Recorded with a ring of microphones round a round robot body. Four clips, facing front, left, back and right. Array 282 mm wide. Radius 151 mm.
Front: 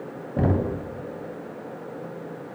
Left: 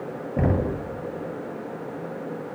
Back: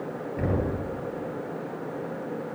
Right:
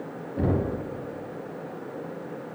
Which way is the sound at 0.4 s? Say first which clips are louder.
Left 2 dB, front 4 dB; 40° left.